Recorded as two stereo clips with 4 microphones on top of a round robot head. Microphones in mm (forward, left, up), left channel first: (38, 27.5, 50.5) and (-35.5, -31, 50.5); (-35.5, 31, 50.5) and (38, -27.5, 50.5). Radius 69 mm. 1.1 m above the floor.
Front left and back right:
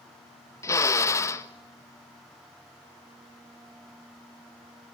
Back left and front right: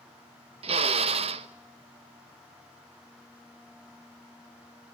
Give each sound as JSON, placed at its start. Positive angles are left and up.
{"t": 0.6, "sound": "a drill", "azimuth_deg": -20, "distance_m": 1.2}